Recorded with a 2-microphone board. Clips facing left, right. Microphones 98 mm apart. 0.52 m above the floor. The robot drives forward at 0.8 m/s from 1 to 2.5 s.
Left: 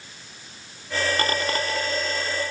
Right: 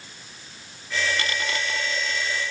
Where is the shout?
I don't hear a shout.